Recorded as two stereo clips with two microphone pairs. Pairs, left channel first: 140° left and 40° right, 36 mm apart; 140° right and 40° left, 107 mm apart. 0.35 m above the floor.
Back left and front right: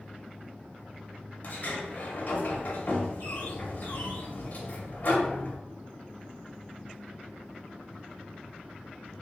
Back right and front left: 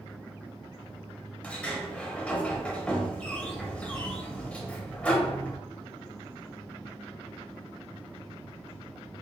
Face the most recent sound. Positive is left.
turn(degrees=150)